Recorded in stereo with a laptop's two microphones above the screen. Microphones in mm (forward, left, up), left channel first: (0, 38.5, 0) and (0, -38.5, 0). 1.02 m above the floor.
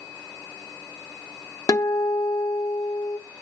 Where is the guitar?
50° left (ahead or behind), 0.9 m.